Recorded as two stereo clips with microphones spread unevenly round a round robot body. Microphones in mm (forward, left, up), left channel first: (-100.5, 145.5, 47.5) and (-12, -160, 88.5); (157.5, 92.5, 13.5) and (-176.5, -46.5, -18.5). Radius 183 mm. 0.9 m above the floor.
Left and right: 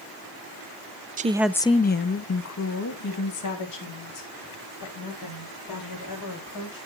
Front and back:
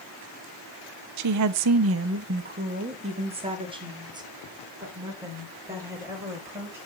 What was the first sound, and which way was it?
A woman speaking, 140° right.